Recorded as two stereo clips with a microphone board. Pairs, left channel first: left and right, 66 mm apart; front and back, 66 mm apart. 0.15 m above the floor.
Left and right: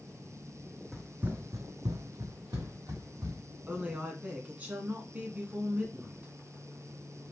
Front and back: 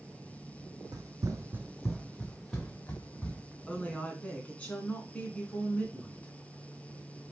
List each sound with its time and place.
0.9 s running footsteps: 175° right, 0.6 m; by 3.4 s 65° right, 1.8 m
3.7 s a woman speaking: 50° right, 1.2 m